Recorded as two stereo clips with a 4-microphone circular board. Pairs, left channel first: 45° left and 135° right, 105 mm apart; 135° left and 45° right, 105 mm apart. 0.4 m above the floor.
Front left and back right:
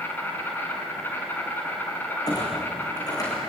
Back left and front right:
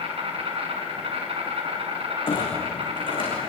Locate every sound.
0.0 s an insect: 25° right, 5 m
2.3 s a clunk: 100° left, 7 m